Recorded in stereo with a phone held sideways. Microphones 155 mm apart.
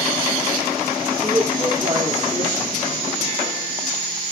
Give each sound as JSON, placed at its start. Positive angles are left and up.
{"t": 1.2, "sound": "a man speaking", "side_deg": -25, "distance_m": 2.5}